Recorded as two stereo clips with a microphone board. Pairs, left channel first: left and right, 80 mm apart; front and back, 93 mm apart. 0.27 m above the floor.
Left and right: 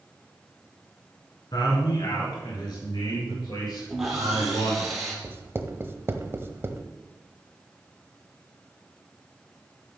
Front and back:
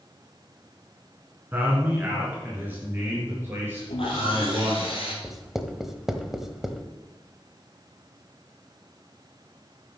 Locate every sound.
1.5 s a man speaking: 110° left, 3 m; by 4.9 s 115° left, 6.5 m
3.9 s sawing: 5° right, 3.5 m
5.2 s writing: 100° right, 0.9 m